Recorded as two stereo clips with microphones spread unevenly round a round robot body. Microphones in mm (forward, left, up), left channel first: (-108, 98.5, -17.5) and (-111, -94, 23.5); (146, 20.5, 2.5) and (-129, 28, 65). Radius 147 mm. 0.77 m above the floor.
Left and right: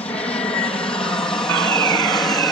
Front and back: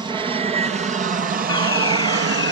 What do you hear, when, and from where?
0.0 s an aircraft: 100° left; by 2.5 s 155° left
1.5 s a fire alarm: 80° right